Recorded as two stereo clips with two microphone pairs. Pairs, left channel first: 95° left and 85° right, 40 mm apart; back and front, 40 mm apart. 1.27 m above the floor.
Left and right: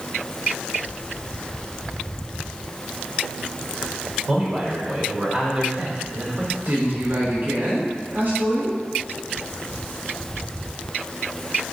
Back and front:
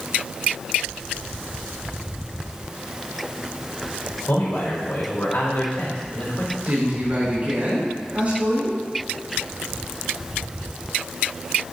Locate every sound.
4.3 s a man speaking: 160° right, 3.5 m
6.7 s a woman speaking: 50° right, 4 m